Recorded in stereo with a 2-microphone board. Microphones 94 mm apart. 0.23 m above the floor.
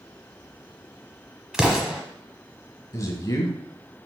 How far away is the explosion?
About 1.2 m.